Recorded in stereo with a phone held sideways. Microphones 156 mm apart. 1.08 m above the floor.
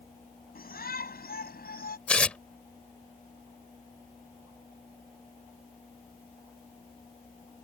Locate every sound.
0.6 s a shout: 75° left (ahead or behind); by 2.0 s 85° left
2.1 s tearing paper: 5° left (ahead or behind)